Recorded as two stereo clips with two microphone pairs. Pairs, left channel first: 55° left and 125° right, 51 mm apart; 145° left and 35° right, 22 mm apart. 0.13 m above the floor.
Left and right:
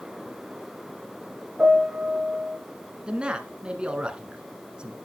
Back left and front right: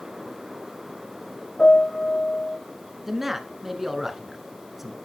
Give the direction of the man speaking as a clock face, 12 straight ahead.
3 o'clock.